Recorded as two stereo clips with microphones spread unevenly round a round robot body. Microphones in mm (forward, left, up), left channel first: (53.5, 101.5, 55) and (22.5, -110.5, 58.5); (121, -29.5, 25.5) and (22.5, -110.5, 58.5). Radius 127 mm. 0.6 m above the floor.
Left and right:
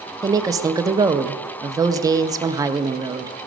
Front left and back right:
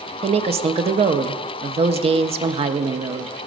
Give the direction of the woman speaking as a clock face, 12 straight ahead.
5 o'clock.